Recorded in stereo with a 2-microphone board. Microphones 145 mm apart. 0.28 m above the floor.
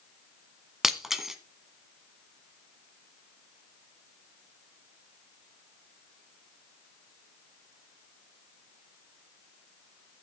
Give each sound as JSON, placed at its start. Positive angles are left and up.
{"t": 0.8, "sound": "breaking glass", "side_deg": -5, "distance_m": 1.3}